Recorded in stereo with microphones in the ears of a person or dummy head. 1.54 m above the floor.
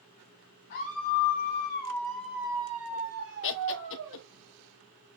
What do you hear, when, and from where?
0.7 s a scream: 55° left (ahead or behind), 1.2 m; by 4.2 s 70° right (ahead or behind), 1.4 m
3.4 s laughter: 60° left (ahead or behind), 1.0 m